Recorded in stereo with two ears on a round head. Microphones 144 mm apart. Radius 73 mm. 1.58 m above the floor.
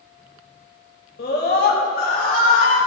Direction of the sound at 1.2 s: 70° left (ahead or behind).